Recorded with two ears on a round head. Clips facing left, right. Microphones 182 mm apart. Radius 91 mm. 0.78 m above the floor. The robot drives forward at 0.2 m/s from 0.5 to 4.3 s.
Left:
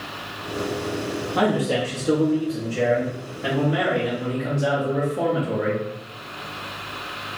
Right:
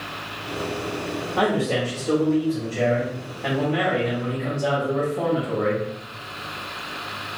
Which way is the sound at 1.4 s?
55° left (ahead or behind).